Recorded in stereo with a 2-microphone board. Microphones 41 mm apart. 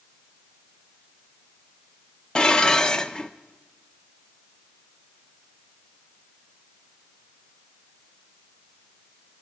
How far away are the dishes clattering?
About 1.0 m.